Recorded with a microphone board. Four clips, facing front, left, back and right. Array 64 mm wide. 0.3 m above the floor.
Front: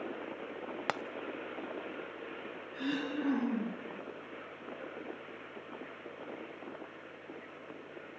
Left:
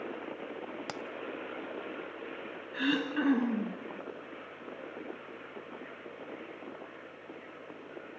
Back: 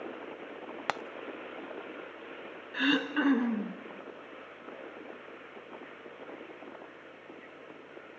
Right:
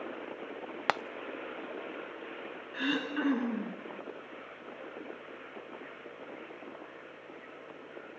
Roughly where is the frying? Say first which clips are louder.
Right 14 dB, back 2 dB; right.